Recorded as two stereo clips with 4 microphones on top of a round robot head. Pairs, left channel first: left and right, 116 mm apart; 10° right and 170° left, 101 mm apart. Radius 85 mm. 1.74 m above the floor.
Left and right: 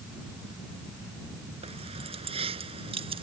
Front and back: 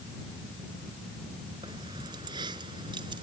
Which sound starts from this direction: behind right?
Keys jangling, at 1.6 s.